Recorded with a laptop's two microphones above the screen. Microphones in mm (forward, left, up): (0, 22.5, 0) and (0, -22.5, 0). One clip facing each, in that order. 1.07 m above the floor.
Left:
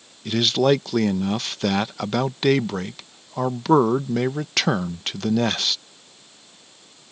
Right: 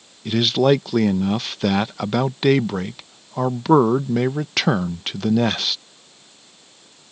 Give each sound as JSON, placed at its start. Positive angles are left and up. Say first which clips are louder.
{"t": 0.2, "sound": "a man speaking", "louder": "right 2 dB", "side_deg": -5}